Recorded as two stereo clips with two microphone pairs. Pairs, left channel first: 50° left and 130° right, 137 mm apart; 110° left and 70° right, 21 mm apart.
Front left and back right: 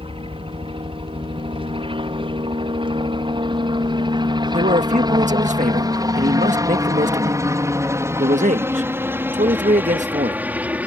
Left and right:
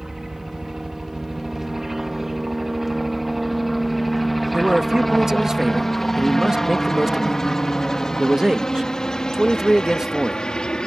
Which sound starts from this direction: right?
A helicopter, at 0.0 s.